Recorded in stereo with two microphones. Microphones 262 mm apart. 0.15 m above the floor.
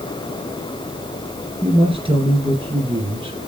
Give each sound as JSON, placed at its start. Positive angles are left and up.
{"t": 1.6, "sound": "a man speaking", "side_deg": -20, "distance_m": 2.5}